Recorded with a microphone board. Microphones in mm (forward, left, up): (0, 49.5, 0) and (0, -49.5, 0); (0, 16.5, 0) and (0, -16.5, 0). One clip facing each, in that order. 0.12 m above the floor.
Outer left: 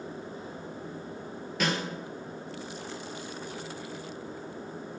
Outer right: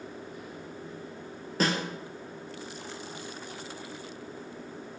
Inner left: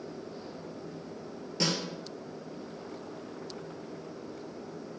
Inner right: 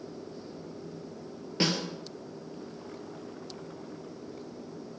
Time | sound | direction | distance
1.6 | a snare drum | 35° right (ahead or behind) | 0.6 m